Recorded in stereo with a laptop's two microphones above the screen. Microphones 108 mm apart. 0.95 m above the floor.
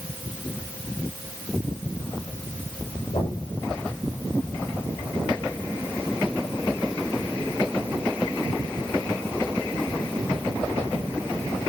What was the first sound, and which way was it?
Knocking, 60° left (ahead or behind).